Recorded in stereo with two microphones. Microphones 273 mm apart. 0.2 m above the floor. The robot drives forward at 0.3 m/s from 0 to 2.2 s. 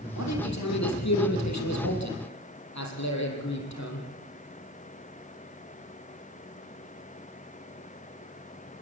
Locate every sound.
0.2 s a man speaking: 80° left, 5.5 m